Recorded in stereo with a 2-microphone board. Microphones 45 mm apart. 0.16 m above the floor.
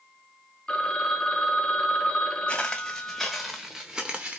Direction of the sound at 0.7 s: 20° left (ahead or behind).